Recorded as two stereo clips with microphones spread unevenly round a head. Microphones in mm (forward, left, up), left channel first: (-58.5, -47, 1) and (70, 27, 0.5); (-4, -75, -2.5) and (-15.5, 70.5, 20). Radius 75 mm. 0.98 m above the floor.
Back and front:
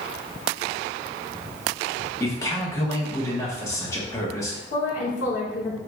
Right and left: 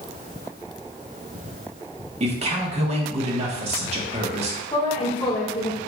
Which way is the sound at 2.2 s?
140° left.